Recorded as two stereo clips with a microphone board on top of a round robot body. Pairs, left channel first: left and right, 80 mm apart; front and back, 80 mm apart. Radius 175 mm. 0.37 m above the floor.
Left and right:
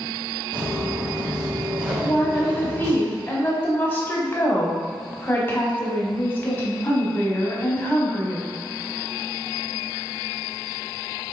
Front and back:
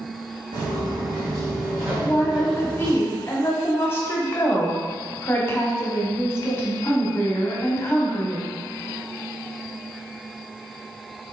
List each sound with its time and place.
0.5 s footsteps: 145° right, 1.8 m; by 3.0 s 70° right, 0.8 m
2.0 s a woman speaking: 40° left, 1.2 m